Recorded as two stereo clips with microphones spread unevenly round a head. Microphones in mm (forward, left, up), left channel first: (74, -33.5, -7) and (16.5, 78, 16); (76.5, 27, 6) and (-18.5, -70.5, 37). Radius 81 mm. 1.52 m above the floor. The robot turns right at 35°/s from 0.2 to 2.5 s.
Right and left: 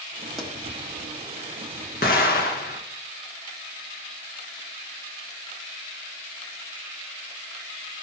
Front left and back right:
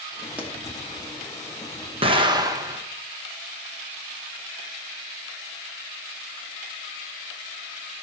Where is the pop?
Straight behind, 1.1 m; by 0.5 s 170° right, 1.1 m.